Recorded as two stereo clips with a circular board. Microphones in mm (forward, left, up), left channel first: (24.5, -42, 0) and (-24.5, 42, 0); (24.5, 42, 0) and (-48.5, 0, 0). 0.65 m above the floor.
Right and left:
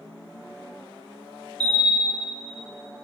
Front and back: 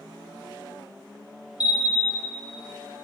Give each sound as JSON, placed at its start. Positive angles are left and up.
{"t": 1.6, "sound": "a bell", "azimuth_deg": 20, "distance_m": 1.2}